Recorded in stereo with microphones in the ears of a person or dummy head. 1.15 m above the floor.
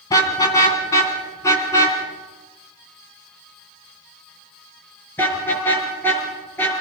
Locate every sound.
0.1 s a car horn: 20° left (ahead or behind), 4 m; by 6.7 s 10° left (ahead or behind), 7.5 m